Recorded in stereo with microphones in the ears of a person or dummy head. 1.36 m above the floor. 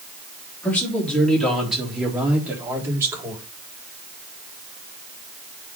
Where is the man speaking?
10° left (ahead or behind), 3.5 m; by 3.4 s 20° right (ahead or behind), 4 m.